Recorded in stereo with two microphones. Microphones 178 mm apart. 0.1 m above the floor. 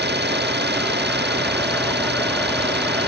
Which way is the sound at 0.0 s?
70° right (ahead or behind).